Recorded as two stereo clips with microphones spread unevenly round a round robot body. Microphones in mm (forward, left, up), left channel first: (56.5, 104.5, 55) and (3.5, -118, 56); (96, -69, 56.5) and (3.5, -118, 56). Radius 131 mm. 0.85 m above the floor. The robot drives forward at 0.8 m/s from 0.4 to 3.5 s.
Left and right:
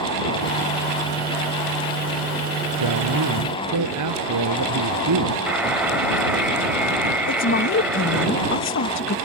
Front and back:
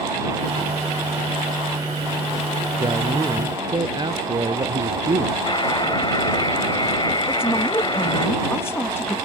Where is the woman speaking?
95° left.